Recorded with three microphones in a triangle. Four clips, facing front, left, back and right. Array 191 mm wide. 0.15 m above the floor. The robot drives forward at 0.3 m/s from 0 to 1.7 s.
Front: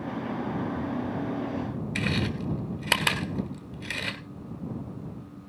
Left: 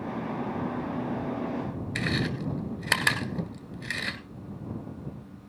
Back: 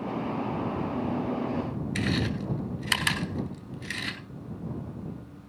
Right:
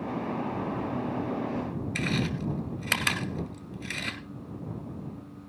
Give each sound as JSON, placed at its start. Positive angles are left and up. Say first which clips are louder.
{"t": 1.9, "sound": "chewing", "louder": "left 1 dB, even", "azimuth_deg": 35, "distance_m": 1.4}